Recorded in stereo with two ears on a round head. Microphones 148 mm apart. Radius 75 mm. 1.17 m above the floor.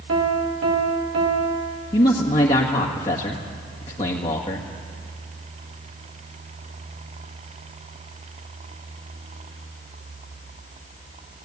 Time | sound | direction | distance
0.1 | a piano | 75° right (ahead or behind) | 2 m
1.9 | a man speaking | 30° left (ahead or behind) | 1.7 m